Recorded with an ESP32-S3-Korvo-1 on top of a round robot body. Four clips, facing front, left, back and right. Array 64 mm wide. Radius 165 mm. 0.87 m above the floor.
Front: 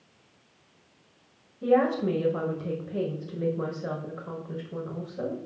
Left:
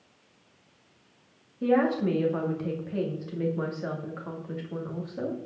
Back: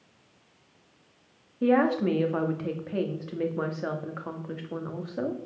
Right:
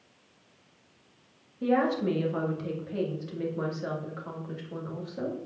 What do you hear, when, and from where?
1.6 s a woman speaking: 175° left, 2 m